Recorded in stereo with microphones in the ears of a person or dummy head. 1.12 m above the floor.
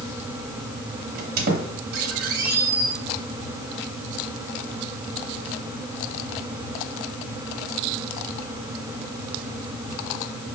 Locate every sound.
1.1 s a squeak: 55° right (ahead or behind), 1.0 m